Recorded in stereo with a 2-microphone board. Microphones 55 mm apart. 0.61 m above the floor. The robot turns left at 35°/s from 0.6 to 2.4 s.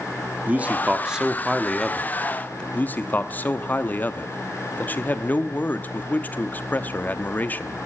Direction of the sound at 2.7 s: 30° left (ahead or behind).